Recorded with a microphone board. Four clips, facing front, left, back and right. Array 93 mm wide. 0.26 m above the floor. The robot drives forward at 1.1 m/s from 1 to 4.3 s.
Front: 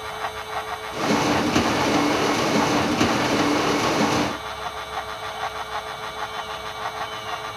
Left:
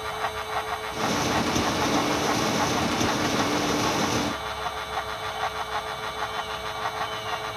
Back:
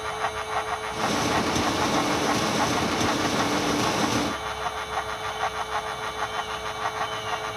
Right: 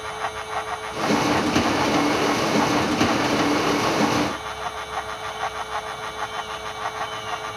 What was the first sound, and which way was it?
Only background noise.